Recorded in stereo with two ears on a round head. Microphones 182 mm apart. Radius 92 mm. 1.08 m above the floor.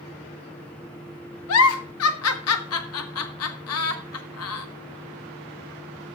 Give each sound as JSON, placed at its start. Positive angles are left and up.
{"t": 1.5, "sound": "a giggle", "side_deg": 85, "distance_m": 1.0}